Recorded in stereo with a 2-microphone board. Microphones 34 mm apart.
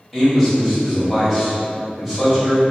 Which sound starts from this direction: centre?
A man speaking, at 0.1 s.